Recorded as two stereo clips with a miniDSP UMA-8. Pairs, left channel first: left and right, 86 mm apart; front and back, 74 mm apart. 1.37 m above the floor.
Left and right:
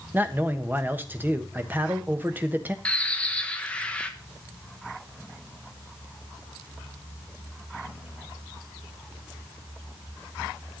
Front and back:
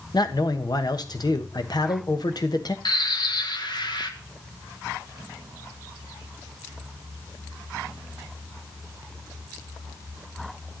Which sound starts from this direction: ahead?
A bird, at 2.9 s.